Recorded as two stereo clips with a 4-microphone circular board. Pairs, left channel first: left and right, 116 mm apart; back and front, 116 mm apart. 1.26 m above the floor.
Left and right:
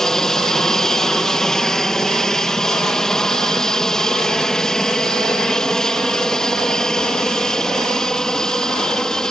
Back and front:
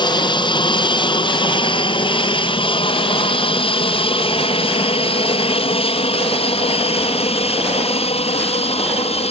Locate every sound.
0.0 s an aircraft: 175° left